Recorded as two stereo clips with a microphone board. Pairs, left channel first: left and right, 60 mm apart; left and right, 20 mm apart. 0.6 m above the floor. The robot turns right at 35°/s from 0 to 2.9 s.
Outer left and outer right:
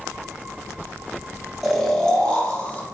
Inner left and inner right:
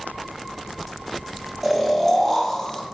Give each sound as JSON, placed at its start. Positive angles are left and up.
{"t": 1.6, "sound": "snoring", "azimuth_deg": 10, "distance_m": 1.4}